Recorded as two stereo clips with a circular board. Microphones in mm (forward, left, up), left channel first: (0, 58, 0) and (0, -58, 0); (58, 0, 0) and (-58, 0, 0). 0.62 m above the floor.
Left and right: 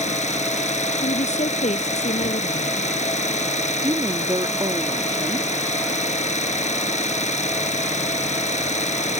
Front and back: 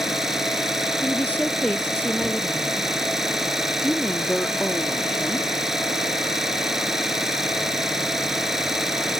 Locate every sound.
0.0 s an engine running: 95° left
1.0 s a woman speaking: 75° left
3.8 s a woman speaking: 75° right